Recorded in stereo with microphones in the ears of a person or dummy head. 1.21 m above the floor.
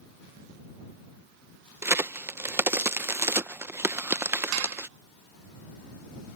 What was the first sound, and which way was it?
A crack, 10° right (ahead or behind).